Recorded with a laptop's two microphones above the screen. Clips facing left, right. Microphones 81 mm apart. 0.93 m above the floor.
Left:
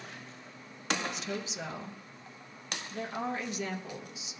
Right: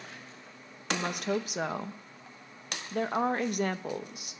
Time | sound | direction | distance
0.9 | a woman speaking | 55° right (ahead or behind) | 0.6 m